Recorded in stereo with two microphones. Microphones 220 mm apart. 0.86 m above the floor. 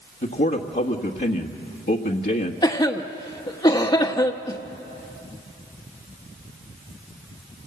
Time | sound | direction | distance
0.2 | a man speaking | 50° left (ahead or behind) | 1.7 m
2.6 | a cough | 20° left (ahead or behind) | 1.1 m